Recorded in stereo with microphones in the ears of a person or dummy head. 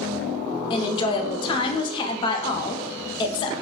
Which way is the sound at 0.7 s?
30° left (ahead or behind).